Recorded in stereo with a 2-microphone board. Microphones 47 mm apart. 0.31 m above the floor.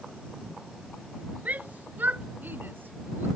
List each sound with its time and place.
1.4 s a shout: 30° right (ahead or behind); by 3.3 s 45° right (ahead or behind)